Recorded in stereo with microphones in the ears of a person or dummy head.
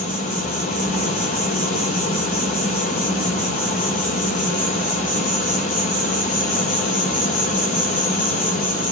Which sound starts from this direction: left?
An insect, at 0.0 s.